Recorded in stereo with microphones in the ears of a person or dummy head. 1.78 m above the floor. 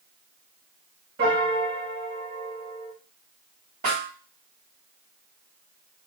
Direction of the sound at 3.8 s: 50° right (ahead or behind).